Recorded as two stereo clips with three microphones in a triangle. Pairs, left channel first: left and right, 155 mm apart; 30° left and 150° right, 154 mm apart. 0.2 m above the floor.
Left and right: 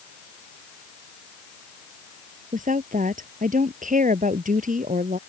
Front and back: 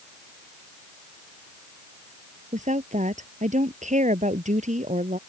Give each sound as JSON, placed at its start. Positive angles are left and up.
{"t": 2.5, "sound": "a woman speaking", "azimuth_deg": -115}